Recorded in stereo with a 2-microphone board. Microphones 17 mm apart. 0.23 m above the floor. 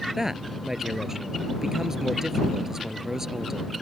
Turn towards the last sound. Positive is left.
turn(degrees=-25)  # may be behind; listen again after turning